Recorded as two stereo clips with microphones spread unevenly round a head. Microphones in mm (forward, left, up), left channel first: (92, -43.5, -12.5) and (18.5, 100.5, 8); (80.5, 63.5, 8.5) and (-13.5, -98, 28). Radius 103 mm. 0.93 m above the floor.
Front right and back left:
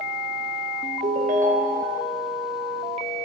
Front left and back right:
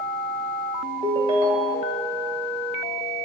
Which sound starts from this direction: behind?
A ringtone, at 1.0 s.